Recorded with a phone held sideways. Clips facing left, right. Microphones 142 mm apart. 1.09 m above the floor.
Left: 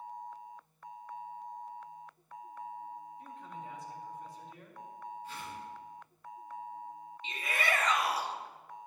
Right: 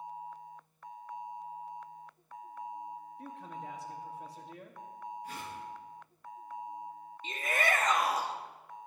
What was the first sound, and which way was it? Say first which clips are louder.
A man speaking: right 2 dB; 75° right (ahead or behind).